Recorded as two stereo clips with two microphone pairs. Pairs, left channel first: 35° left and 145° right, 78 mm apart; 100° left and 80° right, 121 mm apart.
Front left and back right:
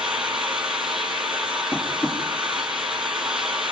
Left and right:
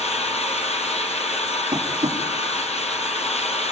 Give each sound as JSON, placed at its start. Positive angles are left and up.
{"t": 0.0, "sound": "an engine running", "azimuth_deg": 130, "distance_m": 4.0}
{"t": 1.7, "sound": "tapping", "azimuth_deg": -30, "distance_m": 6.5}